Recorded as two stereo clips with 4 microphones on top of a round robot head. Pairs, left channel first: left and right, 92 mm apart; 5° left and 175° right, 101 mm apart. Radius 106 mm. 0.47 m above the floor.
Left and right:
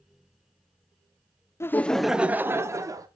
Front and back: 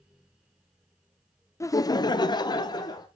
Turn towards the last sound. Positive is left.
turn(degrees=-40)